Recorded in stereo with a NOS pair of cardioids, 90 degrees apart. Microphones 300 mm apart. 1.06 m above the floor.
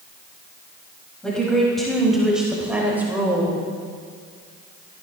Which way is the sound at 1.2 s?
5° left.